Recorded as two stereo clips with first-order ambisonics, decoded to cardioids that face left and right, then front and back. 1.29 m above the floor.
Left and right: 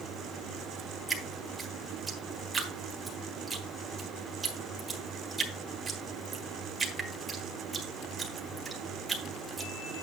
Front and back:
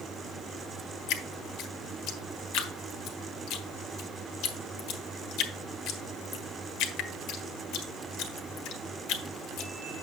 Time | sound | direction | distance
1.1 | dripping | 15° right | 1.5 m